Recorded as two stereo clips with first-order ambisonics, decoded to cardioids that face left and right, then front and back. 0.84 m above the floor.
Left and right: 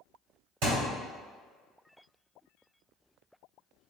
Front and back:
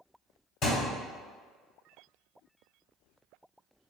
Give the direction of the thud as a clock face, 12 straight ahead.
2 o'clock.